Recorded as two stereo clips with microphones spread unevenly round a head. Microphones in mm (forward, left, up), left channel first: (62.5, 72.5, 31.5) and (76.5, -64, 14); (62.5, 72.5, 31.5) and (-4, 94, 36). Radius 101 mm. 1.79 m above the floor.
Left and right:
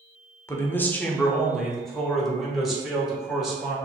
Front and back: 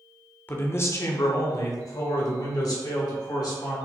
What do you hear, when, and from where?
0.5 s a man speaking: 35° left, 0.8 m; by 3.8 s 5° left, 2.5 m